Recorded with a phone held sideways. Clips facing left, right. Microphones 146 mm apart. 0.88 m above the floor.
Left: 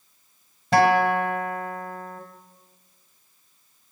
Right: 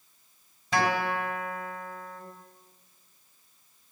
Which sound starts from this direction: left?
A guitar, at 0.7 s.